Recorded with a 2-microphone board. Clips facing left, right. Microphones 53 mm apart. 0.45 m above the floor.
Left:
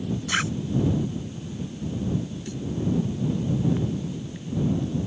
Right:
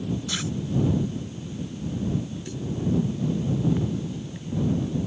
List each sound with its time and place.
0.3 s a zipper: 50° left (ahead or behind)